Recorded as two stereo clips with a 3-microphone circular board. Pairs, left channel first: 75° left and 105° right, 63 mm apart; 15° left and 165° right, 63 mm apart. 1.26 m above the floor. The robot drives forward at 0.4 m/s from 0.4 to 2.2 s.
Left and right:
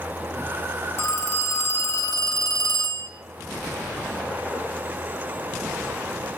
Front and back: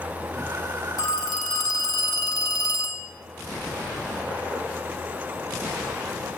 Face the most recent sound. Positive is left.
turn(degrees=45)